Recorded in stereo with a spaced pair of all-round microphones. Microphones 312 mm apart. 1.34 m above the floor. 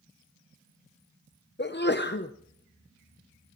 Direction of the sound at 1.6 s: 40° left (ahead or behind).